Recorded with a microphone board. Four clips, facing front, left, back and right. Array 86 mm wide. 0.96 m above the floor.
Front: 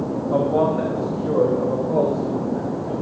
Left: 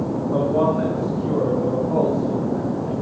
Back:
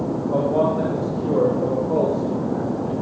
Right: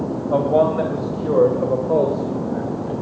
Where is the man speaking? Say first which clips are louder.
Right 3 dB, front 1 dB; 85° right, 1.8 m; by 2.9 s 110° right, 4 m.